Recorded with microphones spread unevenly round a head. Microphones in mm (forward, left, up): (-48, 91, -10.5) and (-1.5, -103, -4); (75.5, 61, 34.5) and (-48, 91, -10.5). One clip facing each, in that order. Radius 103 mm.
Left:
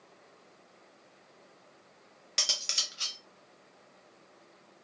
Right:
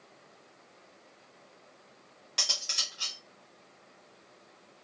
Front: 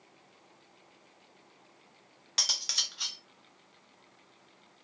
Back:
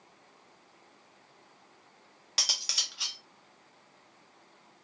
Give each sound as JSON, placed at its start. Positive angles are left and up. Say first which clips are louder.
{"t": 2.4, "sound": "cutlery clinking", "louder": "even, back 1 dB", "azimuth_deg": 55, "distance_m": 0.5}